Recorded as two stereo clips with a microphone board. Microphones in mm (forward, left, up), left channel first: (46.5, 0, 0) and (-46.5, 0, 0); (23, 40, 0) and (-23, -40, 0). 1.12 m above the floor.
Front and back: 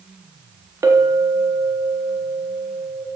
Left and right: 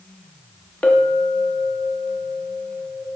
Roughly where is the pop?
I don't hear a pop.